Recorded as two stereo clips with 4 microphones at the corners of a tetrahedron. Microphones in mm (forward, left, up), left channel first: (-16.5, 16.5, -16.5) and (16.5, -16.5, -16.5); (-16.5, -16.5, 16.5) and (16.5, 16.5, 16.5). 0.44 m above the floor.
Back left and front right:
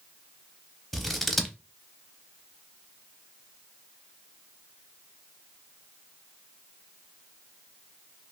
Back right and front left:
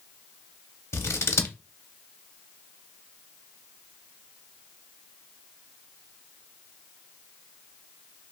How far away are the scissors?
About 0.5 m.